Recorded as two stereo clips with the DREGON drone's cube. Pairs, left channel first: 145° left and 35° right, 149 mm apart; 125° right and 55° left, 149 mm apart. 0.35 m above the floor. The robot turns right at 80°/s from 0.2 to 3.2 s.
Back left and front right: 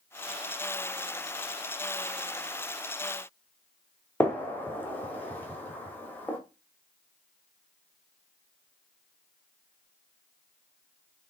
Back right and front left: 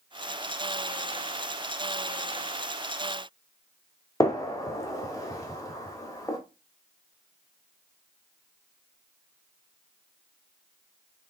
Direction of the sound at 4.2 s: 155° right.